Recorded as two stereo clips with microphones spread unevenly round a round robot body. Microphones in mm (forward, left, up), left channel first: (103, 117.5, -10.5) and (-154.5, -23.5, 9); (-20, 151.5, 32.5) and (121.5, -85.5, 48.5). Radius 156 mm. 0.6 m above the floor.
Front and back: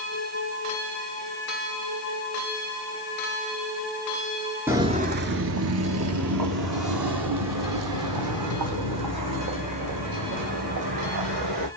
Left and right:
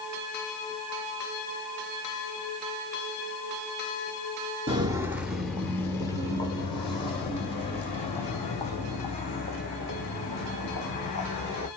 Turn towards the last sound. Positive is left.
turn(degrees=-170)